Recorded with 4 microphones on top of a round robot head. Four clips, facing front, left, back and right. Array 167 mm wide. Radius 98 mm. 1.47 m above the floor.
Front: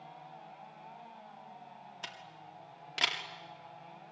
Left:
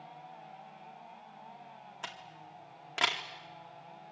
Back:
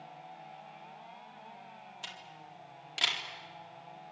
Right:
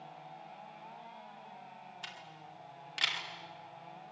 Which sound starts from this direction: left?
A camera shutter, at 2.0 s.